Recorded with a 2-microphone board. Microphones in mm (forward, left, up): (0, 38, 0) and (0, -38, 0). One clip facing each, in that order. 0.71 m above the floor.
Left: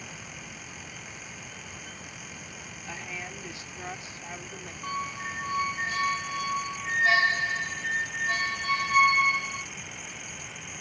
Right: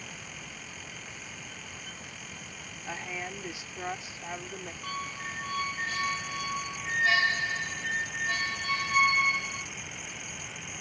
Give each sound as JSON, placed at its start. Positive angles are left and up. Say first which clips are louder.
{"t": 2.9, "sound": "a woman speaking", "louder": "right 2 dB", "side_deg": -20}
{"t": 4.8, "sound": "a squeak", "louder": "left 5 dB", "side_deg": 25}